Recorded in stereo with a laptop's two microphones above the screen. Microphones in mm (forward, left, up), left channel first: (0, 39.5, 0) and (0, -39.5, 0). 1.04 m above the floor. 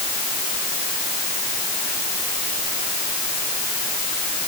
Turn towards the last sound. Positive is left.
No sound to turn to.